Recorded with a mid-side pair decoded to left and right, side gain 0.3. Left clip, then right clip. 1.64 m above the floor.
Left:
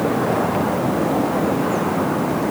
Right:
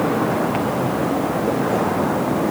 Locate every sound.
Only background noise.